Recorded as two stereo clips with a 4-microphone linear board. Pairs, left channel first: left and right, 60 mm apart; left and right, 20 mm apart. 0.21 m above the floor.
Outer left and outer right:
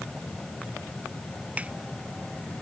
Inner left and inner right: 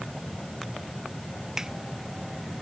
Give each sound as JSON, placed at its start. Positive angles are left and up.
{"t": 1.6, "sound": "a finger snap", "side_deg": -25}